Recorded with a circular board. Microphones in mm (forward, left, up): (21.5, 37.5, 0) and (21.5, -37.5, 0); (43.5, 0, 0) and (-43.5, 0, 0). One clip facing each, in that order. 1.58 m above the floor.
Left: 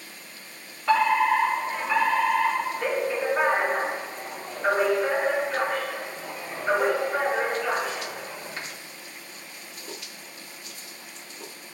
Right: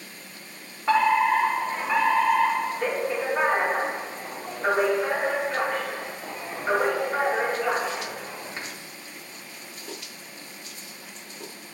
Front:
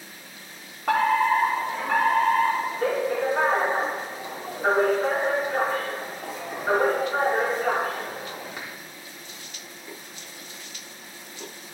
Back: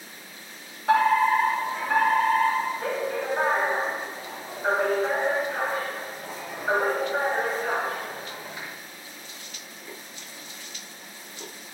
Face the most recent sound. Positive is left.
turn(degrees=-20)